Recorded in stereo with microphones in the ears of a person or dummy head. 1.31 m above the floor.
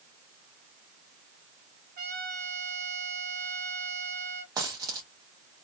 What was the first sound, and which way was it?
A trumpet, 50° right (ahead or behind).